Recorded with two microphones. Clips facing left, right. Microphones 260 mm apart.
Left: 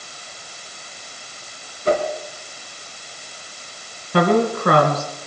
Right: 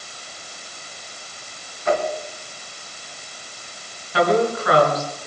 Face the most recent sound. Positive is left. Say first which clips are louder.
# left 2 dB
turn(degrees=55)  # may be behind; listen again after turning